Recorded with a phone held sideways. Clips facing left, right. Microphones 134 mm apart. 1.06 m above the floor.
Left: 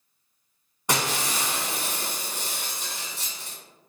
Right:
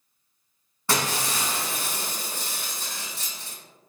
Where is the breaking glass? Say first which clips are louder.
Even; 20° left (ahead or behind), 1.6 m.